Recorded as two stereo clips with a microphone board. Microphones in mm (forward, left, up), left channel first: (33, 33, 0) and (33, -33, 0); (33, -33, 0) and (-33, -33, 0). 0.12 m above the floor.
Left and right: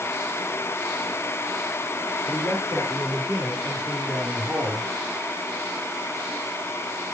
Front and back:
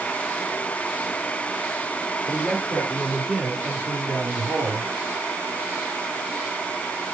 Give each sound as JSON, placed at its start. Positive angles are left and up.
{"t": 2.3, "sound": "a man speaking", "azimuth_deg": 125, "distance_m": 3.0}